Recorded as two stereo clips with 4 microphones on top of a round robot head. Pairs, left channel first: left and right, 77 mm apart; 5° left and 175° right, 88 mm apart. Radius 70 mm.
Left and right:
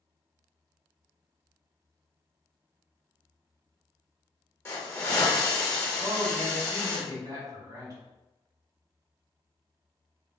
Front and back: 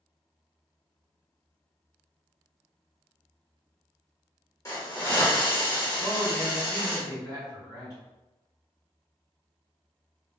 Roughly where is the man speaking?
Ahead right.